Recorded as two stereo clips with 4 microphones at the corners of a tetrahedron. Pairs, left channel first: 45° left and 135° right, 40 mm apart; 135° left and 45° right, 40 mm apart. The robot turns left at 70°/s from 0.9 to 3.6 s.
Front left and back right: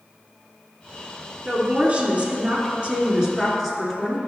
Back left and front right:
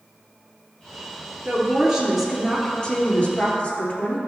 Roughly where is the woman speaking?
Right.